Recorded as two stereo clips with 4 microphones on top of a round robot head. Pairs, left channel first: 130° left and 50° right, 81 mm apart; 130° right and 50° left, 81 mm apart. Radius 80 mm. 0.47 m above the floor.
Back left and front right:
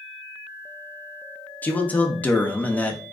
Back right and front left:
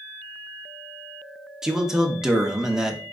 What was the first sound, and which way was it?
A man speaking, 120° left.